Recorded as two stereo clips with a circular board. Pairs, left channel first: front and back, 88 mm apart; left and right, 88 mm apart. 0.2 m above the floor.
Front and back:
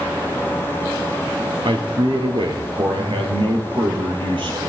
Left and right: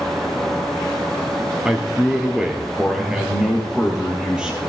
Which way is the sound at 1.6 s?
170° right.